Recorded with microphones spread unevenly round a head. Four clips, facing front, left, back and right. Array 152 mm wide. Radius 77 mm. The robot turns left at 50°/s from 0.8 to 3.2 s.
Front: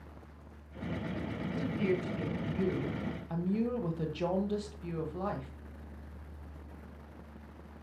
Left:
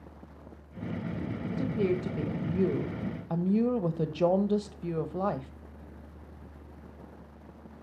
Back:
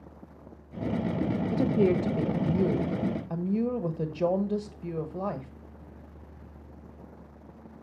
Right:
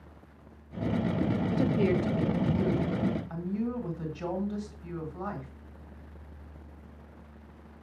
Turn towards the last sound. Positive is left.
turn(degrees=115)